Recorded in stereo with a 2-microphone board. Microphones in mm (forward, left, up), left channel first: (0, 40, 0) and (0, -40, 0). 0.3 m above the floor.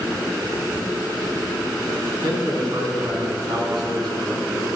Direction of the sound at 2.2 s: 60° right (ahead or behind).